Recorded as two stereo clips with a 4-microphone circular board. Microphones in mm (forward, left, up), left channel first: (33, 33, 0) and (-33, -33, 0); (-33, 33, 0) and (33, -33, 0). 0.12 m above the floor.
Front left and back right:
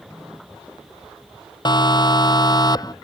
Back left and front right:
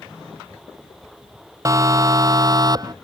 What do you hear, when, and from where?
1.6 s a siren: 10° left; by 2.9 s straight ahead